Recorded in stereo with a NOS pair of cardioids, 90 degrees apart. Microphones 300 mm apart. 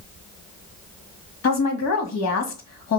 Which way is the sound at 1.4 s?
60° left.